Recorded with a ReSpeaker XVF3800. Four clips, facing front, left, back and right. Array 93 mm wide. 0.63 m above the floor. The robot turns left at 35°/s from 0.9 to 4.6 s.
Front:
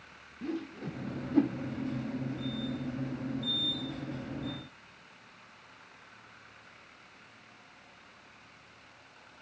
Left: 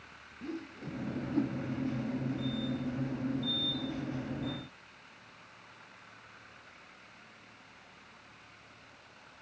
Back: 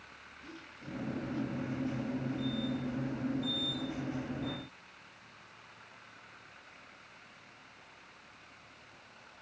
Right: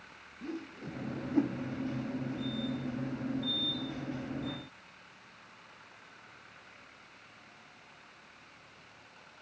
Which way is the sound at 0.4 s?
5° right.